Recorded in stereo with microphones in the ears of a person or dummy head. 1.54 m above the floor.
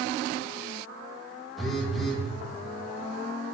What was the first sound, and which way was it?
A phone buzzing, centre (ahead or behind).